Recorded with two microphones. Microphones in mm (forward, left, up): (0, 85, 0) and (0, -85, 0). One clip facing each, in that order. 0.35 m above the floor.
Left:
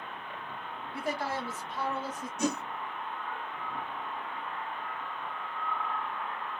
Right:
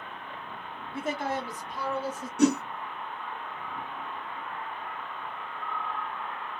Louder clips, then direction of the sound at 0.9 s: Right 3 dB; 25° right (ahead or behind).